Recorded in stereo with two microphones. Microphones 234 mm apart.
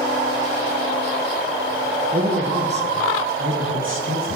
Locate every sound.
2.1 s a man speaking: 40° right (ahead or behind), 2.5 m; by 4.3 s 65° right (ahead or behind), 3 m